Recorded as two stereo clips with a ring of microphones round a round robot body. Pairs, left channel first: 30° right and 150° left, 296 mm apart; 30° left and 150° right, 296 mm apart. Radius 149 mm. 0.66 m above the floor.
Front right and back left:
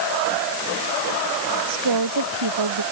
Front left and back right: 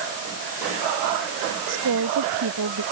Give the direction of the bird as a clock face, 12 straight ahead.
No bird in this recording.